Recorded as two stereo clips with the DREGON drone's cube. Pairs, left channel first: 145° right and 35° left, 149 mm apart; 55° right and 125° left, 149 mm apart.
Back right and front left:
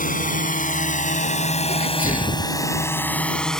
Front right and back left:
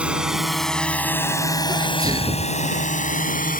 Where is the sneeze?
170° right.